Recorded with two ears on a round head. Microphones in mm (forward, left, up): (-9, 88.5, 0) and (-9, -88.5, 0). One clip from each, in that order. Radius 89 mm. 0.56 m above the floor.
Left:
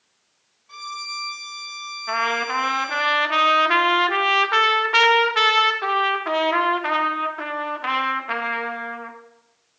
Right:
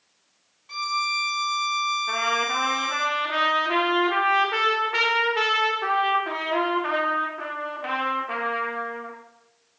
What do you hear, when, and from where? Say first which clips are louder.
0.7 s a violin: right 6 dB; 35° right (ahead or behind), 1.4 m
2.1 s a trumpet: left 1 dB; 40° left (ahead or behind), 0.7 m